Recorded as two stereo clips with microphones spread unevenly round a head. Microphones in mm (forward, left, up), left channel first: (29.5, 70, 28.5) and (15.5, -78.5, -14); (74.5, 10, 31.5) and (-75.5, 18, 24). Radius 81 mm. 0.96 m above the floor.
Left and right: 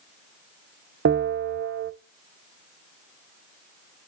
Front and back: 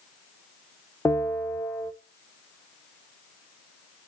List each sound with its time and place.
1.1 s a bell: 80° right, 0.6 m